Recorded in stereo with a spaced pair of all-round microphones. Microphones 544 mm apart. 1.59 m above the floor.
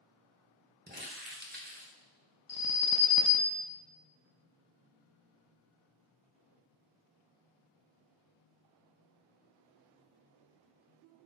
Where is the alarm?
40° left (ahead or behind), 0.7 m.